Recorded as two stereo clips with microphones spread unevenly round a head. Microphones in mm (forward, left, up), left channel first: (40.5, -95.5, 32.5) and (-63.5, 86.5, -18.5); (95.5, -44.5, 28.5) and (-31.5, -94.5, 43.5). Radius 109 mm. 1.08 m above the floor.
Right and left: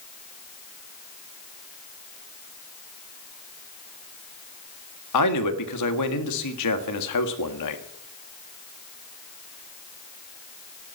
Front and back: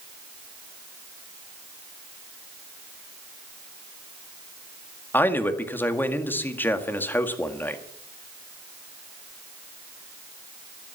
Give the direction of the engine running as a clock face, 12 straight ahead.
I don't hear an engine running.